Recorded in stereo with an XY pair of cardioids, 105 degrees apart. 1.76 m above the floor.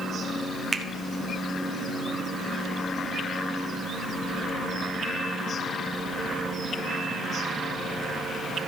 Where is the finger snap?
25° right, 0.9 m.